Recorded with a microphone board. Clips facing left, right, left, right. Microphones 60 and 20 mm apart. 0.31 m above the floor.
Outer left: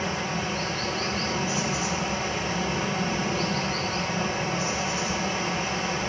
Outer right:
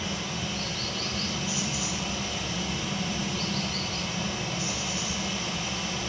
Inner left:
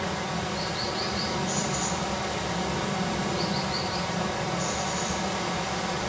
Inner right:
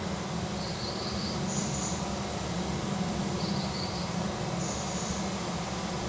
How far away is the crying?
No crying in this recording.